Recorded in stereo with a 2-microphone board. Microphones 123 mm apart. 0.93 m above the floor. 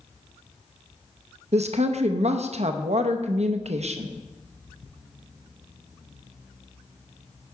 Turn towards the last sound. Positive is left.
turn(degrees=-60)  # may be behind; listen again after turning